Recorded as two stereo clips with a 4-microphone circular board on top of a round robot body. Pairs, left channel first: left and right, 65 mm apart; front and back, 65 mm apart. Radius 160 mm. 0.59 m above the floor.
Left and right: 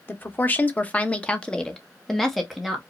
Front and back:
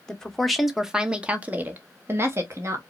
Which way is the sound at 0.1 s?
70° left.